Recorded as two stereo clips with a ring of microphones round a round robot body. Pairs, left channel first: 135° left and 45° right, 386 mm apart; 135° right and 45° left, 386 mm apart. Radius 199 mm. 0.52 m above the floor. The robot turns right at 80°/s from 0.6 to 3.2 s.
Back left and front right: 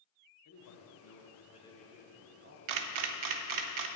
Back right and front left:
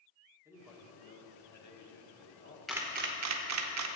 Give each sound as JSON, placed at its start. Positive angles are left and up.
{"t": 0.5, "sound": "a man speaking", "azimuth_deg": 125, "distance_m": 1.2}
{"t": 2.7, "sound": "a camera shutter", "azimuth_deg": -45, "distance_m": 0.6}